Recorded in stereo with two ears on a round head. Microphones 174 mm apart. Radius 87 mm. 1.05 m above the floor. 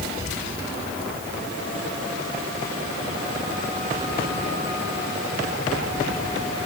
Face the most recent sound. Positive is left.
No sound to turn to.